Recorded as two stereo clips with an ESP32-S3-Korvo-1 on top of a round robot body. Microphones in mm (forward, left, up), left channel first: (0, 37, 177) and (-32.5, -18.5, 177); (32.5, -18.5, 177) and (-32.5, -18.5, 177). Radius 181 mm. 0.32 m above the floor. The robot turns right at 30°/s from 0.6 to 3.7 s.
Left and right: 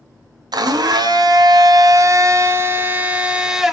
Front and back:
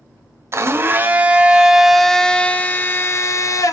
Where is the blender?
130° right, 0.5 m; by 3.7 s 35° right, 0.5 m.